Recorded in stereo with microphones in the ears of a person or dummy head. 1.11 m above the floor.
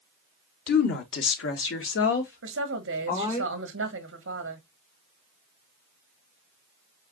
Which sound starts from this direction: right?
A woman speaking, at 2.4 s.